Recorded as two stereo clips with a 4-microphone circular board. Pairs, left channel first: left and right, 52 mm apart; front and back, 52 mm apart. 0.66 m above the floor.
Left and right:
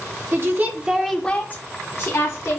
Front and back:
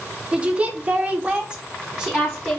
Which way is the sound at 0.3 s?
115° right.